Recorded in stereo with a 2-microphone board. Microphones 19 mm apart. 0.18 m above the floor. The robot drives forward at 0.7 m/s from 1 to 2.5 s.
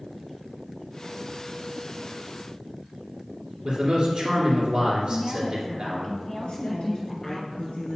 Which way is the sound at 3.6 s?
55° right (ahead or behind).